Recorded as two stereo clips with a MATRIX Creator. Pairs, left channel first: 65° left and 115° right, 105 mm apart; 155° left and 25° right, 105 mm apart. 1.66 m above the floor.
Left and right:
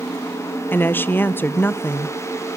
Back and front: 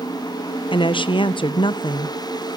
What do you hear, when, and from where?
0.7 s a woman speaking: 135° left, 0.8 m